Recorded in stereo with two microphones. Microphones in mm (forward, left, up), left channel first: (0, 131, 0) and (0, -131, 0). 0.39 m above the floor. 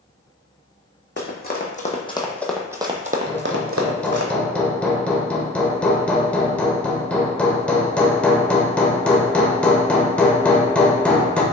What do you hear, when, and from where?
1.2 s running footsteps: 40° left (ahead or behind), 1.1 m; by 4.3 s 65° right (ahead or behind), 0.9 m
3.3 s hammering: 5° left (ahead or behind), 0.6 m